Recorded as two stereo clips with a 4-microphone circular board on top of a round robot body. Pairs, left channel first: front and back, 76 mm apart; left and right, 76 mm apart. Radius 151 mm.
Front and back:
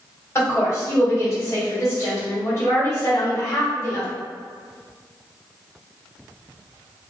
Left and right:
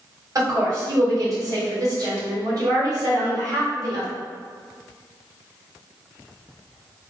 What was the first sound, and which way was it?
A woman speaking, 50° right.